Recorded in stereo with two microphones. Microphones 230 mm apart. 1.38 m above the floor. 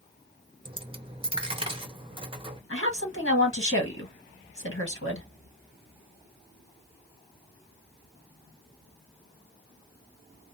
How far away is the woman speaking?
About 1.4 m.